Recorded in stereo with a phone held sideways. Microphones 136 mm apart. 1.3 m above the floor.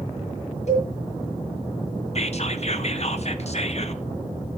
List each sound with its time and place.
0.7 s a cowbell: 55° left (ahead or behind), 5 m
2.1 s whispering: 50° left (ahead or behind), 0.8 m